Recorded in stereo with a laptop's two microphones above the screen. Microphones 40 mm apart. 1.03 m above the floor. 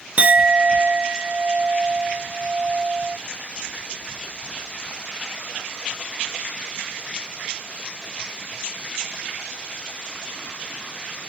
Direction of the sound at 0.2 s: 40° right (ahead or behind).